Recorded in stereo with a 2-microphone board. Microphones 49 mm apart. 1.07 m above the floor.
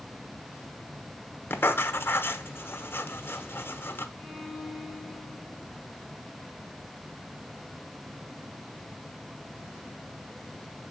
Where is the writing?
50° left (ahead or behind), 1.1 m.